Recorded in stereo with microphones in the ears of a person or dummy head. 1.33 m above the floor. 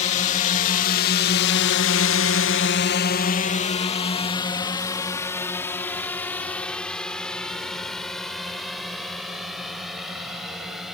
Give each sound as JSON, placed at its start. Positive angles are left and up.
{"t": 0.0, "sound": "a drone", "side_deg": 40}